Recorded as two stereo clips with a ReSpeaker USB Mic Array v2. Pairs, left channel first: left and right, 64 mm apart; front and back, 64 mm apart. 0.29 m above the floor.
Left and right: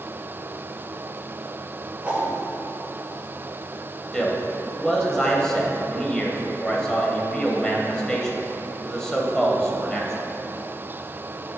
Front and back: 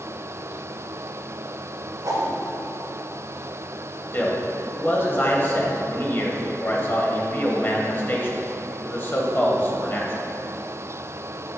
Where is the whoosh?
160° right, 1.6 m.